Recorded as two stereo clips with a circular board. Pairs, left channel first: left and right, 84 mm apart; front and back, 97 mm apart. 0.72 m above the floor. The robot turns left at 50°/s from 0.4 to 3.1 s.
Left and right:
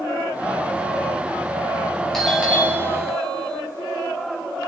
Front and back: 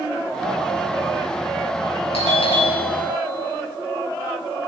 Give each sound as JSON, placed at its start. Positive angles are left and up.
{"t": 2.1, "sound": "a doorbell", "azimuth_deg": 5, "distance_m": 6.5}